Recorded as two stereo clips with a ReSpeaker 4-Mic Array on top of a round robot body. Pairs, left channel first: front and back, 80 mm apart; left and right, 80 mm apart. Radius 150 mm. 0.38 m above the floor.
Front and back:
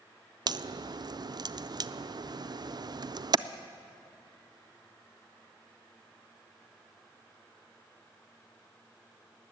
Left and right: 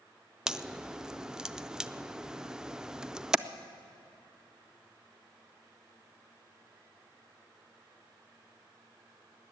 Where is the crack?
170° right, 0.5 m.